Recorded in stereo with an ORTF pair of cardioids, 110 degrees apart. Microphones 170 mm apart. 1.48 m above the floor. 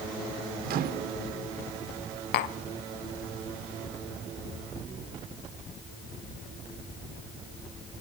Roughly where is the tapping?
Left.